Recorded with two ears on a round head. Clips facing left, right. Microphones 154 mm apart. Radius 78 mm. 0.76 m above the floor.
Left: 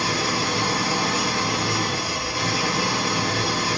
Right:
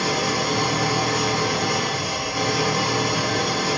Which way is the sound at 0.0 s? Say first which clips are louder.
Right 2 dB; 45° right (ahead or behind).